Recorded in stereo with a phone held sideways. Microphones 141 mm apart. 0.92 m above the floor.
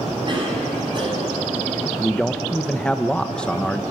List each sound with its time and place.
0.3 s a cough: 40° right (ahead or behind), 9 m
2.0 s a man speaking: 5° left (ahead or behind), 0.9 m